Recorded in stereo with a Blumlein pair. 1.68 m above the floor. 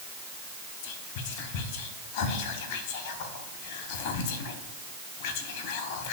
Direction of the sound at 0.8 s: 50° left.